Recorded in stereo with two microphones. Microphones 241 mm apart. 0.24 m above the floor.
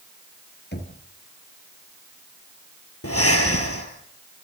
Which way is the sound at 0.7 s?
45° left (ahead or behind).